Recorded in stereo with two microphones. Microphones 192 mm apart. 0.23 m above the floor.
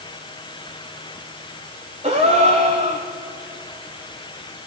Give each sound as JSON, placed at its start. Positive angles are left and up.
{"t": 2.0, "sound": "a gasp", "side_deg": -35, "distance_m": 4.0}